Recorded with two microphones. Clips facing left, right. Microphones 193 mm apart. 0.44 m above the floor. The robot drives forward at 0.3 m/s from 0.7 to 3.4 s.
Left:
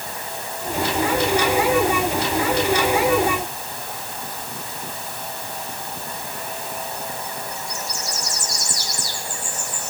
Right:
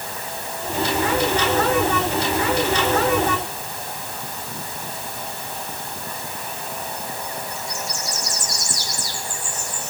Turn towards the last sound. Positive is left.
No sound to turn to.